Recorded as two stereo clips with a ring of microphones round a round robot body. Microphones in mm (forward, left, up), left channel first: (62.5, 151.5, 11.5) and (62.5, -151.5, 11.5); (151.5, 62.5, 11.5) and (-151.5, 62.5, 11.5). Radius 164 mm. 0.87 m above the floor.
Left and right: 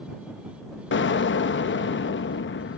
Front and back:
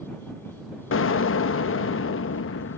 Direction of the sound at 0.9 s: 40° left.